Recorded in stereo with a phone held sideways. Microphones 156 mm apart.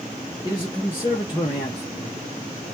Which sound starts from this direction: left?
A man speaking, at 0.4 s.